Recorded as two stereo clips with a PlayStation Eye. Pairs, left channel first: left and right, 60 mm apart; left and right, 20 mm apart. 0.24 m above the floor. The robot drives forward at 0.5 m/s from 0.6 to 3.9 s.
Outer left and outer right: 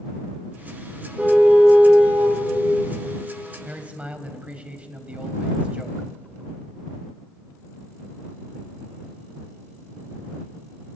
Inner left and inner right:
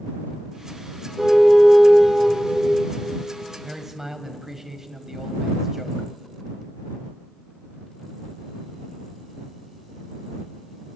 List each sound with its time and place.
1.2 s a car horn: 20° right (ahead or behind), 5 m
3.6 s a man speaking: 25° right (ahead or behind), 1.1 m